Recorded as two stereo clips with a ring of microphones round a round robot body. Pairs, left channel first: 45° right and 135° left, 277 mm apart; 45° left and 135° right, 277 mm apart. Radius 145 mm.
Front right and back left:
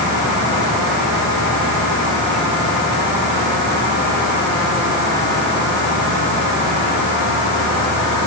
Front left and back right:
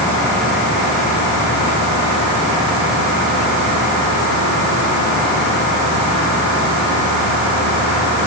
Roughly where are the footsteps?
I don't hear footsteps.